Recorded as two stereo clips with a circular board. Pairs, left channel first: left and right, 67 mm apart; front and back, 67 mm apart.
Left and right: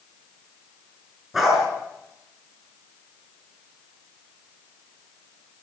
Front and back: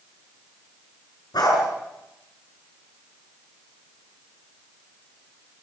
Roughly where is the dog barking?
Ahead.